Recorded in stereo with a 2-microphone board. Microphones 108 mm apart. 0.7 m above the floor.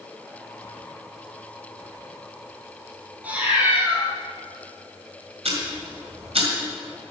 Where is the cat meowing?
15° right (ahead or behind), 2 m.